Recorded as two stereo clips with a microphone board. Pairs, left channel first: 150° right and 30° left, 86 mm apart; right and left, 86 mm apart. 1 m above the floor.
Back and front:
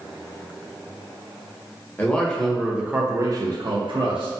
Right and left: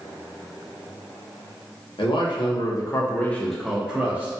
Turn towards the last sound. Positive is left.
turn(degrees=25)